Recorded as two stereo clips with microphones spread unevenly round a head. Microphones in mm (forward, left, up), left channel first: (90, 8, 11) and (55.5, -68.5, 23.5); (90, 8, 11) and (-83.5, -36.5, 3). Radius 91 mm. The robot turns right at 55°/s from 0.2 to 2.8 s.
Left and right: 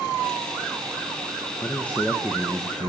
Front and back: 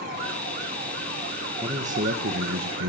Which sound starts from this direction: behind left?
A man speaking, at 1.6 s.